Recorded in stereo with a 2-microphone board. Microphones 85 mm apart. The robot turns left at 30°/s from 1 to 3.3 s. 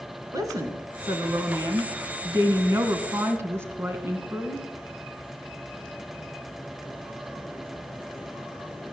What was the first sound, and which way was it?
A woman speaking, 70° right.